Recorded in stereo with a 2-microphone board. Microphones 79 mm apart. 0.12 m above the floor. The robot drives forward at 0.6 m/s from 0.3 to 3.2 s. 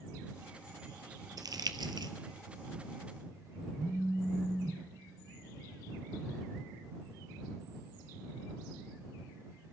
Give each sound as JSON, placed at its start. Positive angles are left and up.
{"t": 1.4, "sound": "crumpling", "side_deg": -55, "distance_m": 0.7}
{"t": 3.8, "sound": "a phone buzzing", "side_deg": 10, "distance_m": 1.6}